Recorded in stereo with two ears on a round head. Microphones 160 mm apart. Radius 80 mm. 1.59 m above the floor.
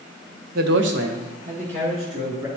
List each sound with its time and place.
0.6 s a man speaking: 50° right (ahead or behind), 0.7 m; by 2.5 s 25° right (ahead or behind), 2.5 m